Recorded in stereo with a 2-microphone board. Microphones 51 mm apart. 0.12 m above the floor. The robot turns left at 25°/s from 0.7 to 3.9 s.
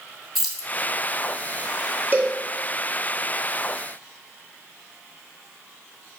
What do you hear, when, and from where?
0.3 s keys jangling: centre (ahead or behind), 0.8 m
2.1 s a cowbell: 40° right (ahead or behind), 0.8 m; by 2.4 s 35° right (ahead or behind), 0.8 m